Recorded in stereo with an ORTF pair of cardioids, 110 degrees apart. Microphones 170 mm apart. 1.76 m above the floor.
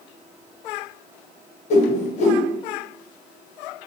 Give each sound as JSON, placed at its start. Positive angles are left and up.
{"t": 1.7, "sound": "a whoosh", "azimuth_deg": 45, "distance_m": 0.8}